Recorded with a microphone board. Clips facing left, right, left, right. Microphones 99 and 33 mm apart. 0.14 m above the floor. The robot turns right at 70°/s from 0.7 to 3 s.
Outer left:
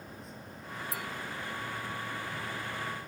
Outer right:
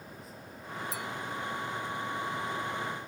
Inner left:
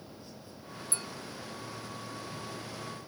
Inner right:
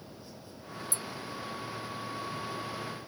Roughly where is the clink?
Left.